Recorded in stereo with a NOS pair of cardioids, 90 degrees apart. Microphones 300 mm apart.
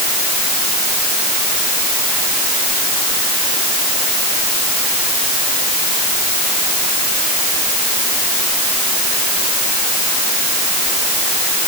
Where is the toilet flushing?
I don't hear a toilet flushing.